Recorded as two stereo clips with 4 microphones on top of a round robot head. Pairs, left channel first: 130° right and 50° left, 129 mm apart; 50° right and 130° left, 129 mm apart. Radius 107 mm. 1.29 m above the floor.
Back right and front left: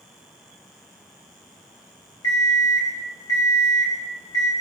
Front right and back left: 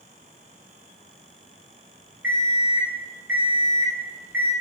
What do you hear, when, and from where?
2.2 s an alarm clock: 170° right, 0.6 m